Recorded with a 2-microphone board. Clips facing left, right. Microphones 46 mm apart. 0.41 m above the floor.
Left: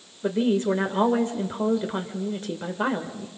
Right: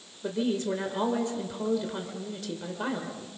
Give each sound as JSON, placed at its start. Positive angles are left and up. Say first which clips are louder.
{"t": 0.2, "sound": "a woman speaking", "louder": "left 6 dB", "side_deg": 30, "distance_m": 1.4}